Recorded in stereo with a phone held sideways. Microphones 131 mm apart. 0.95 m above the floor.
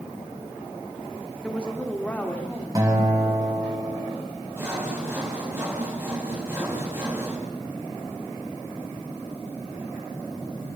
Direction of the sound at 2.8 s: 25° right (ahead or behind).